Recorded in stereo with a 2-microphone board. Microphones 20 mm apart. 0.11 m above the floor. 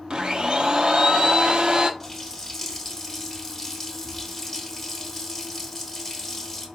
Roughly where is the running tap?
Centre.